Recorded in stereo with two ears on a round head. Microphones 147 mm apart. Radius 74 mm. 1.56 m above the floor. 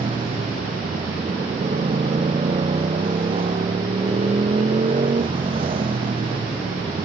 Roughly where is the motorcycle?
Right.